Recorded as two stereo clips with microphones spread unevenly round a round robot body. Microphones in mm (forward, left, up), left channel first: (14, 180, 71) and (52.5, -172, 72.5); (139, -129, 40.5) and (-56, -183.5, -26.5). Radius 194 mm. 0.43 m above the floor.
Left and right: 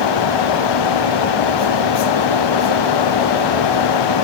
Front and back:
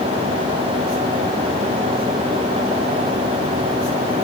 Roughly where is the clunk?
I don't hear a clunk.